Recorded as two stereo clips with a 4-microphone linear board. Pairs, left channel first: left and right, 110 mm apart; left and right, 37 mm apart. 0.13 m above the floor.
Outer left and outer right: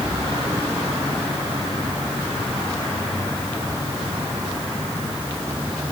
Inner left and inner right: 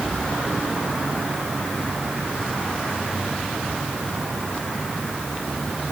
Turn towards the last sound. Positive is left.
No sound to turn to.